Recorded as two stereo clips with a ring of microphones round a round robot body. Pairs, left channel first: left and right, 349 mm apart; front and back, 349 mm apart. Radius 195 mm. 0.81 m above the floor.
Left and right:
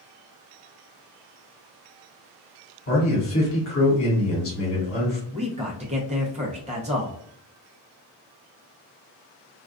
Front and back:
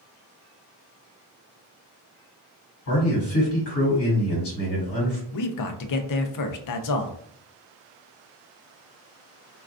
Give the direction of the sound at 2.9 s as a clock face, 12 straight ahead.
11 o'clock.